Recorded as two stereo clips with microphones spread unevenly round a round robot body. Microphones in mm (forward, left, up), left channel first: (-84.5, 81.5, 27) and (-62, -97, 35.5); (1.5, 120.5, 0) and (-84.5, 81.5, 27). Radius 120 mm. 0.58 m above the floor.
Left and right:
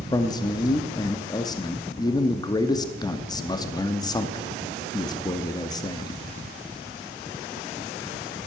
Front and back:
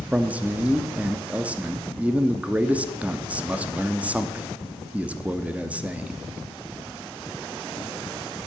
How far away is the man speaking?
About 0.7 m.